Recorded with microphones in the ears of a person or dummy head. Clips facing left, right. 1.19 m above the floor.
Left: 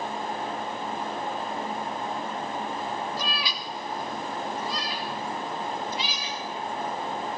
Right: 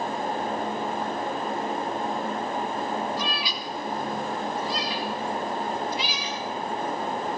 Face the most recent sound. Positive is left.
turn(degrees=35)  # may be behind; listen again after turning